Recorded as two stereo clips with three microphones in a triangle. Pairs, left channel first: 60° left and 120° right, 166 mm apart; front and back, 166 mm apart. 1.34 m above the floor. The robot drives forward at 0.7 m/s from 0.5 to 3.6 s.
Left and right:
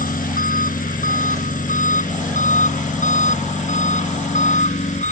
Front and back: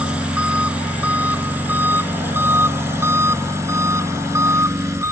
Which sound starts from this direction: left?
An engine running, at 0.0 s.